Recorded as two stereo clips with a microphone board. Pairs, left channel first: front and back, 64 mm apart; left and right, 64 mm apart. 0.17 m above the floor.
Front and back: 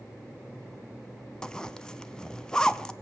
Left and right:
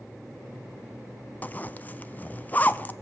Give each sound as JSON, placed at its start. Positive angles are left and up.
{"t": 1.4, "sound": "a zipper", "azimuth_deg": 65, "distance_m": 0.5}